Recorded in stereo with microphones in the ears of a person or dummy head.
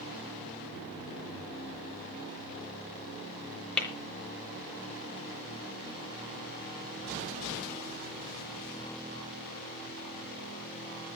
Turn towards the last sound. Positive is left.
turn(degrees=5)  # may be behind; listen again after turning